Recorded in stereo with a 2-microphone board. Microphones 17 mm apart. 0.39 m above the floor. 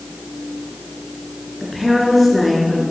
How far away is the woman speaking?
About 4 m.